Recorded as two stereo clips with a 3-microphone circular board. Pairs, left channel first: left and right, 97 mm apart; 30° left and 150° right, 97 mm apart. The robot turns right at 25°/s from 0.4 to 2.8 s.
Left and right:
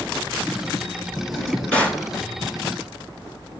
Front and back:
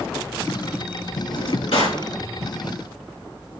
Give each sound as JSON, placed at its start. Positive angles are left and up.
{"t": 1.3, "sound": "a drawer", "azimuth_deg": 0, "distance_m": 2.0}